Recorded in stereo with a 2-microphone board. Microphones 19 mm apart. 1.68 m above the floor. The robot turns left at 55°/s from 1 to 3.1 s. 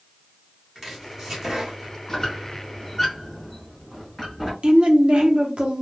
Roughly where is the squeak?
Centre.